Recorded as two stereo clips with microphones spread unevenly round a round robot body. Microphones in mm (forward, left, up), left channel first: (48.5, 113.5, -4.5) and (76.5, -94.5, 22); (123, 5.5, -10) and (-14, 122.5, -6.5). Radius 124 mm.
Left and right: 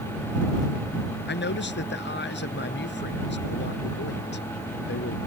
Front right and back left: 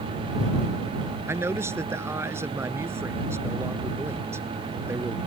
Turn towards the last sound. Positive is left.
turn(degrees=65)